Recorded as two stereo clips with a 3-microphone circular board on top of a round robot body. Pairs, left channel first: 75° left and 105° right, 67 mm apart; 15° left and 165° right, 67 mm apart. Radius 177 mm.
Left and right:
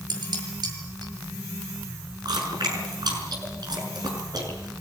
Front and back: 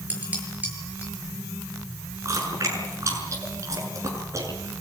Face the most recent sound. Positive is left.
turn(degrees=-120)